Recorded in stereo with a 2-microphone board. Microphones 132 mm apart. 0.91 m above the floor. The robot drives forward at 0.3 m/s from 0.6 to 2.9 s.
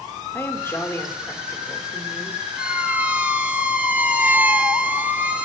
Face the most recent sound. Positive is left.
turn(degrees=-10)  # may be behind; listen again after turning